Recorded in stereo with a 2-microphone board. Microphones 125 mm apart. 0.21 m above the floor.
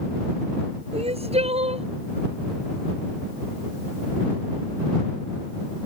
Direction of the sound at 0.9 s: 55° right (ahead or behind).